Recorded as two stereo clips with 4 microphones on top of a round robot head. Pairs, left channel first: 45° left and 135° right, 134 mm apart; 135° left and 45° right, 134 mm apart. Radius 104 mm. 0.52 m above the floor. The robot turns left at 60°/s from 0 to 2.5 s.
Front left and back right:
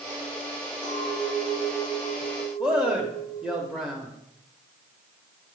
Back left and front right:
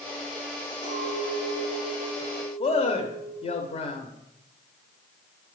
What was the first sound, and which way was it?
A clink, 20° right.